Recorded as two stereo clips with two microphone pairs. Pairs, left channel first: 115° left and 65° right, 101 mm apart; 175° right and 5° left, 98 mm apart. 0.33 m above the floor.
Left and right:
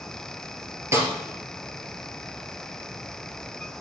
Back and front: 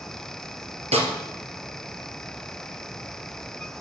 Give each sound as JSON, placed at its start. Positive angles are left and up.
{"t": 0.9, "sound": "a snare drum", "azimuth_deg": 0, "distance_m": 2.5}